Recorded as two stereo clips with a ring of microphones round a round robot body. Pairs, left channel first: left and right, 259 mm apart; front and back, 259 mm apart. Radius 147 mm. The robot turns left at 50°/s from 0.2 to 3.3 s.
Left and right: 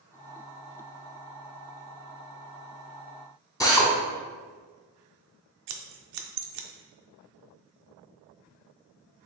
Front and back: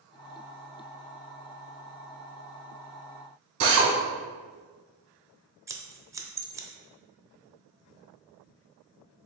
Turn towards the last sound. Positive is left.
turn(degrees=-100)